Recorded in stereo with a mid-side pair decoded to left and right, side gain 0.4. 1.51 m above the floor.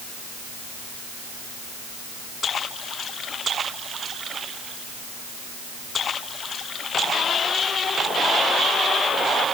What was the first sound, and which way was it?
Only background noise.